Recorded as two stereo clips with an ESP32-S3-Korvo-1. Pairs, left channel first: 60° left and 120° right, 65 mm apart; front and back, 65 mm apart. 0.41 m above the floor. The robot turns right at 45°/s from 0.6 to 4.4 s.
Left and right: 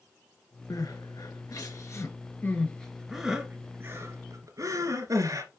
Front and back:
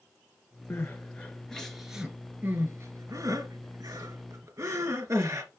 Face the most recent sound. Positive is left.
turn(degrees=-150)